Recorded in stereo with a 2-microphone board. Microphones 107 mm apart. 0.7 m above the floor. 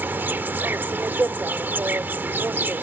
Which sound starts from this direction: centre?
An insect, at 0.0 s.